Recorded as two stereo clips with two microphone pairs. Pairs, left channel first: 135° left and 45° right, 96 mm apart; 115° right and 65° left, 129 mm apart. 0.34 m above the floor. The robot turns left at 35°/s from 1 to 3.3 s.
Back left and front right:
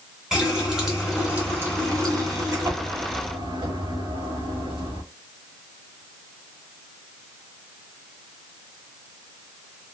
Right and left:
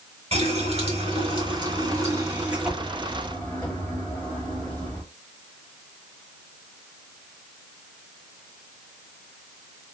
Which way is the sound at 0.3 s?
40° left.